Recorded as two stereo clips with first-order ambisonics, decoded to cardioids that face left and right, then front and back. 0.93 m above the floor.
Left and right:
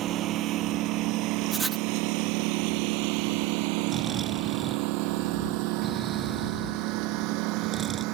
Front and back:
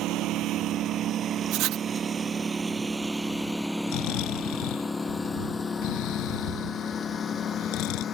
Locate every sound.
0.0 s a lawn mower: 140° right; by 8.1 s 60° right
1.5 s writing: 165° right
3.9 s snoring: 20° right